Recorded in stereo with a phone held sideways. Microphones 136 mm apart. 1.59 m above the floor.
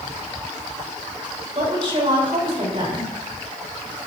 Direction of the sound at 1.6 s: 40° right (ahead or behind).